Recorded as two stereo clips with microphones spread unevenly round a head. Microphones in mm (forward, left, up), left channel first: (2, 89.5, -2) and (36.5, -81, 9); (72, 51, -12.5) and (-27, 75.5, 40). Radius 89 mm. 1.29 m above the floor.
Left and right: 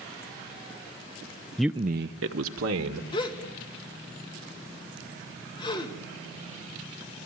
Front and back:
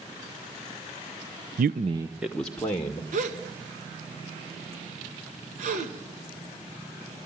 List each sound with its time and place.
1.6 s a man speaking: 175° right, 0.6 m; by 3.0 s 85° right, 2 m
3.1 s a gasp: 165° left, 2.0 m